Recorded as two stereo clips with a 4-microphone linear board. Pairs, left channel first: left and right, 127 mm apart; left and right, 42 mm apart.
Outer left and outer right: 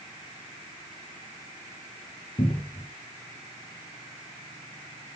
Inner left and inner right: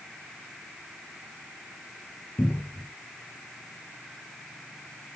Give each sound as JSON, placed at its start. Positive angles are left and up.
{"t": 2.4, "sound": "a cupboard door", "side_deg": 50, "distance_m": 1.7}